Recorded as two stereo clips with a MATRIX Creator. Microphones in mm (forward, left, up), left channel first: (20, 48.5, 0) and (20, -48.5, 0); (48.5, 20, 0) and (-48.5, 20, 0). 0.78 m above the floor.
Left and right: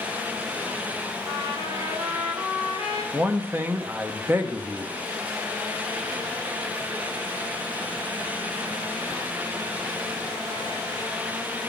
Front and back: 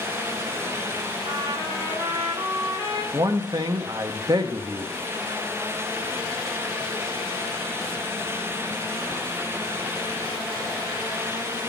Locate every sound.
1.3 s a trumpet: 135° right, 1.9 m
3.1 s a man speaking: 150° right, 0.8 m